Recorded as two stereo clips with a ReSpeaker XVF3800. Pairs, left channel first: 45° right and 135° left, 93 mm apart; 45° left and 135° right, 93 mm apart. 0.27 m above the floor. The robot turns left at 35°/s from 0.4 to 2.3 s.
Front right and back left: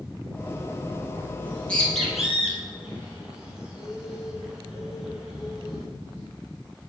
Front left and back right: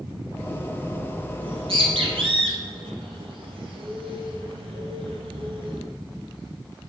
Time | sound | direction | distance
1.4 | a bird | 110° right | 2 m